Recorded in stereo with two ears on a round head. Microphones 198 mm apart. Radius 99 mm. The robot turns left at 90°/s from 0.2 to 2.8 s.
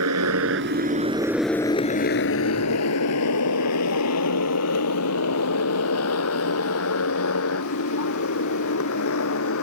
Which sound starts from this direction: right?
A motorcycle, at 0.0 s.